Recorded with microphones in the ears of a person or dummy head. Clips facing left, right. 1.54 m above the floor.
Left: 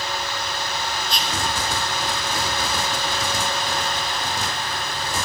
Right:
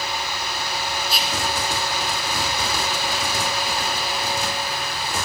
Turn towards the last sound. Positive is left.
turn(degrees=0)  # may be behind; listen again after turning